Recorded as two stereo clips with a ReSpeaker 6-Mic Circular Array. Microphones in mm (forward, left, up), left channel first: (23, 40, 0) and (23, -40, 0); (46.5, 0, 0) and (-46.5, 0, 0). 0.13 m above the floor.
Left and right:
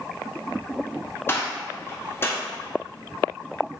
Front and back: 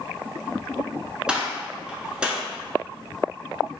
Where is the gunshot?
110° left, 0.9 m.